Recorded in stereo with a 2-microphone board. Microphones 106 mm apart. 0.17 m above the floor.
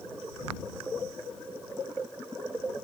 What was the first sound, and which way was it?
Only background noise.